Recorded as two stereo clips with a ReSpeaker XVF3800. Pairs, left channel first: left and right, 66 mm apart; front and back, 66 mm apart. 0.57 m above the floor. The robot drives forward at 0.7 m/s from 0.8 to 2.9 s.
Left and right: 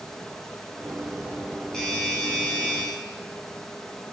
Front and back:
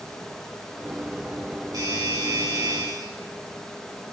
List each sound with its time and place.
1.7 s a doorbell: 170° left, 5 m